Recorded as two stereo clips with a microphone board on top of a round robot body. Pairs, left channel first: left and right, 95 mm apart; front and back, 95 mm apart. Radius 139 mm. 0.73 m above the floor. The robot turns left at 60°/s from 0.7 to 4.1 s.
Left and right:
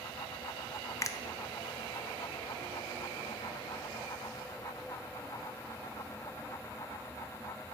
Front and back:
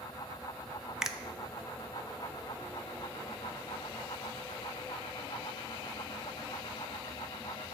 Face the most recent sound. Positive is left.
turn(degrees=-80)